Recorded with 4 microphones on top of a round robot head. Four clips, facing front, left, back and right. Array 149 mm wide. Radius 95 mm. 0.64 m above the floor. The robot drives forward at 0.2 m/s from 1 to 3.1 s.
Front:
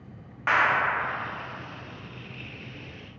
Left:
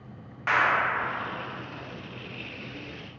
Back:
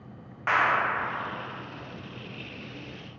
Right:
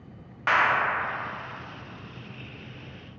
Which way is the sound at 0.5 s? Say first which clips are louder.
Right 1 dB, front 1 dB; 90° right.